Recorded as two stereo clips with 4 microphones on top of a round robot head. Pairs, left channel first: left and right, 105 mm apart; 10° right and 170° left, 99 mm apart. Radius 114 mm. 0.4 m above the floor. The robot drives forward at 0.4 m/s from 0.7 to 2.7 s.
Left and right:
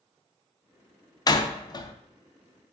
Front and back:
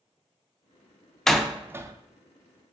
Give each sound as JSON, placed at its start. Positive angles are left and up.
{"t": 1.3, "sound": "a door slam", "azimuth_deg": 75, "distance_m": 0.5}